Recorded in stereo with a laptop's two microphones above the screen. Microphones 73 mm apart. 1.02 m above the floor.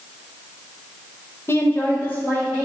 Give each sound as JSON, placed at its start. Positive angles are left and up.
{"t": 1.5, "sound": "a woman speaking", "side_deg": 35, "distance_m": 0.5}